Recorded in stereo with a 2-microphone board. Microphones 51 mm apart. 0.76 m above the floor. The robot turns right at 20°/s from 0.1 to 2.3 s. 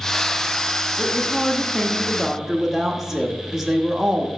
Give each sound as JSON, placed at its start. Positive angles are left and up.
{"t": 1.0, "sound": "a woman speaking", "side_deg": 15, "distance_m": 0.8}